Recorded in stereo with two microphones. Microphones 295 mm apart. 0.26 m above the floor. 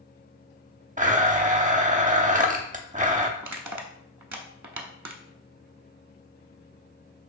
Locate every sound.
1.0 s a blender: 25° right (ahead or behind), 0.5 m
3.4 s crushing: 75° right (ahead or behind), 0.5 m